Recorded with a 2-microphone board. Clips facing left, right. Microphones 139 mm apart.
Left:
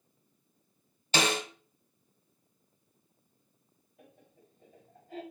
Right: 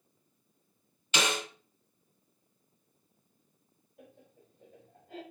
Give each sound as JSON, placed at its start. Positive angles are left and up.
{"t": 1.1, "sound": "a snare drum", "side_deg": 35, "distance_m": 1.3}
{"t": 4.0, "sound": "laughter", "side_deg": -65, "distance_m": 3.0}